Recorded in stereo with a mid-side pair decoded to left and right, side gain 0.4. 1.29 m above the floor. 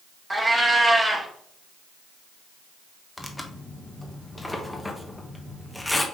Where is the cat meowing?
15° right, 1.7 m.